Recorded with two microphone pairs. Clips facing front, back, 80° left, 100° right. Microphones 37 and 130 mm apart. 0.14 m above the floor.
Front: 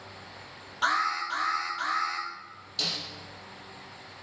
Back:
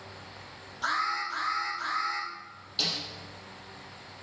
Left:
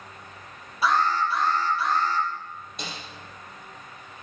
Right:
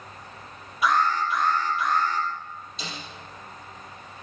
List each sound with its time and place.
0.8 s an alarm: 30° left, 4 m
2.8 s a snare drum: 110° left, 5 m